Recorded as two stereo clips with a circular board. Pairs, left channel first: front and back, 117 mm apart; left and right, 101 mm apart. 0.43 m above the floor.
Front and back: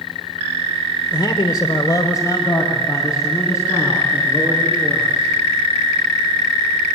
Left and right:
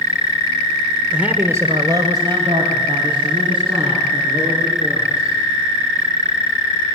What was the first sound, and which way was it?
A man speaking, 10° right.